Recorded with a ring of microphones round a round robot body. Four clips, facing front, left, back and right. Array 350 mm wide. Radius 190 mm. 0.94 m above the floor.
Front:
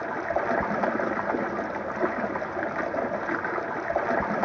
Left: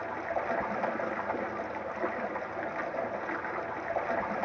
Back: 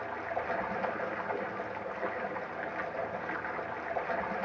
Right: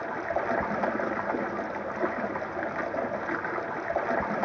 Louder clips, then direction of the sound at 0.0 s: Right 3 dB, front 8 dB; 20° right.